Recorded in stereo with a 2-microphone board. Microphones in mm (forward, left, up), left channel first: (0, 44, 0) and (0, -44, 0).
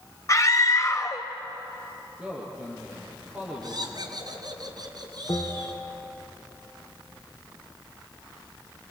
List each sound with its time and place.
0.3 s a scream: 40° left (ahead or behind), 2.0 m
2.2 s a man speaking: 10° right (ahead or behind), 7.5 m
3.6 s laughter: 50° right (ahead or behind), 4 m
5.3 s a bell: 40° left (ahead or behind), 4 m